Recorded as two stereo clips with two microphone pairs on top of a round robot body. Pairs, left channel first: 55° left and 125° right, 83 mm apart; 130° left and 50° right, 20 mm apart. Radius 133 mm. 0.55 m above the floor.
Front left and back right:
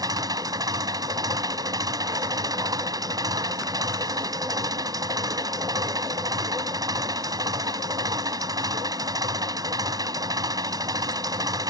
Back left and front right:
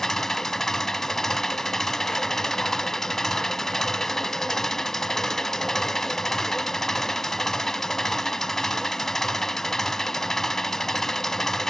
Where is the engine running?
170° right.